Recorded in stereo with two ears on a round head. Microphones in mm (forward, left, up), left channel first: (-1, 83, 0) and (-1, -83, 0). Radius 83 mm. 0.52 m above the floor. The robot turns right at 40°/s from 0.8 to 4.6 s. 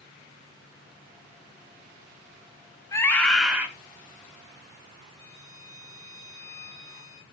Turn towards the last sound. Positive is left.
turn(degrees=-80)